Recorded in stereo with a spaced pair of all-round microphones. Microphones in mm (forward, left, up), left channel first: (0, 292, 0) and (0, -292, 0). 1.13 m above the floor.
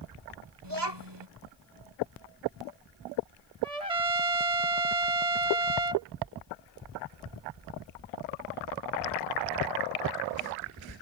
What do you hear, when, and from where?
0.6 s a child speaking: 45° right (ahead or behind)
3.6 s a trumpet: 85° right